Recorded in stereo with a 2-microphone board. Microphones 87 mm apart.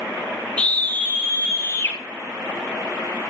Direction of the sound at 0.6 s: 15° left (ahead or behind).